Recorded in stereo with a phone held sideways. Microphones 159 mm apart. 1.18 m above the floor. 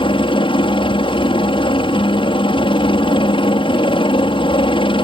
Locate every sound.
0.0 s a helicopter: 35° left (ahead or behind)